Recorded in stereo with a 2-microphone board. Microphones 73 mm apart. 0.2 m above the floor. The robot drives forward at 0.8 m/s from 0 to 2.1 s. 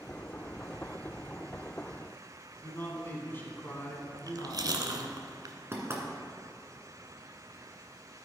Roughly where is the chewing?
Right.